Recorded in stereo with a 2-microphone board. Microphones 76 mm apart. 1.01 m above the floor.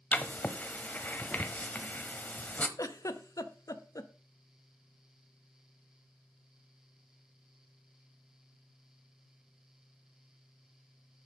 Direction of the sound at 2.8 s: 55° left (ahead or behind).